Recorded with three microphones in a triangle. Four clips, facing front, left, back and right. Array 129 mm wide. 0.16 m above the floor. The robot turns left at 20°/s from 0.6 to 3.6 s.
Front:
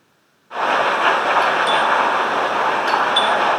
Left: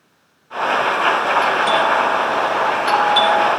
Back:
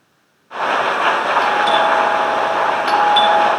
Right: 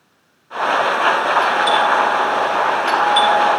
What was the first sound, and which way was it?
A doorbell, 175° left.